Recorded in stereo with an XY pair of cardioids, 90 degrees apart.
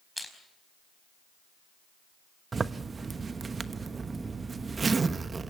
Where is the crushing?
Straight ahead, 4.5 m.